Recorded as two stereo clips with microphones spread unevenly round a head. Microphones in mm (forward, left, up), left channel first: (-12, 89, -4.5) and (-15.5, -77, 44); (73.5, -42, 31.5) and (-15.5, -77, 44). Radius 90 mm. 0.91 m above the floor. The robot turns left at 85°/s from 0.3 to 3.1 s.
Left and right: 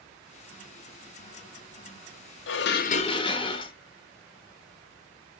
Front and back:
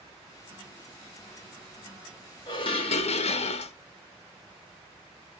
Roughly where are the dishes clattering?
Left.